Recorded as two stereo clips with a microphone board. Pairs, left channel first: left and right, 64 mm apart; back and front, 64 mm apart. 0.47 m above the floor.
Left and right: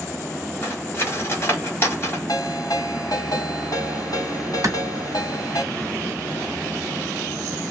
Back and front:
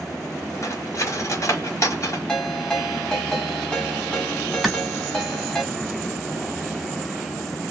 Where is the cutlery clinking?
140° left, 1.4 m.